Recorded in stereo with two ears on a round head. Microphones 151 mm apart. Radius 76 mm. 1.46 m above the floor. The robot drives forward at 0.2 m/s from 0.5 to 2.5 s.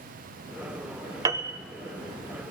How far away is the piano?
About 0.5 m.